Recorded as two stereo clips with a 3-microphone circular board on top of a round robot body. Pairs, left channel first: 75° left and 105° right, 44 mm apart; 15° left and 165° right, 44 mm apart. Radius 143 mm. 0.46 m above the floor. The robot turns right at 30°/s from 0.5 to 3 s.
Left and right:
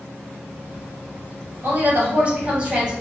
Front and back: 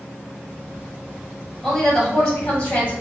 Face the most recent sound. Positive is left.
turn(degrees=-30)